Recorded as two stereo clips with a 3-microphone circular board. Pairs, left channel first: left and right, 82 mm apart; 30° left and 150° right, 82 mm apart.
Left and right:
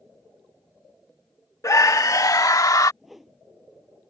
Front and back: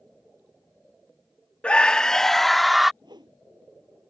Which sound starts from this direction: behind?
A whoosh, at 3.0 s.